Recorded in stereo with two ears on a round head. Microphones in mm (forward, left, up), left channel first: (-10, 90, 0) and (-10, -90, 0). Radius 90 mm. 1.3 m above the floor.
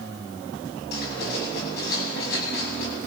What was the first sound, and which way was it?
Writing, 50° left (ahead or behind).